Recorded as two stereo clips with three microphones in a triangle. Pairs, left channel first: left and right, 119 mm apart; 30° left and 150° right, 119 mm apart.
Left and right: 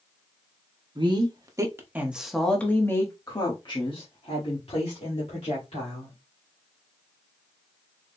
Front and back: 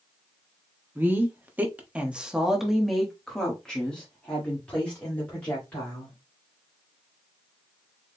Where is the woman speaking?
85° right, 1.1 m; by 6.2 s 105° left, 2.5 m.